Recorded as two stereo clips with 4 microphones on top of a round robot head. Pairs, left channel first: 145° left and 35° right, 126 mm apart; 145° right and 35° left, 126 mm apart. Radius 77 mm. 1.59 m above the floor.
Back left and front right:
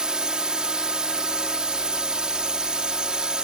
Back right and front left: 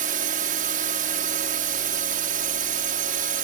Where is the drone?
50° left.